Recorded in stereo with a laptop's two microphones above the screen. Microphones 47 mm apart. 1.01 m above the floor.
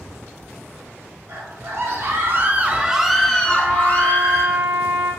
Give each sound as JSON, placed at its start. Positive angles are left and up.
{"t": 1.3, "sound": "a scream", "side_deg": -70, "distance_m": 1.3}
{"t": 3.4, "sound": "a trumpet", "side_deg": -75, "distance_m": 1.9}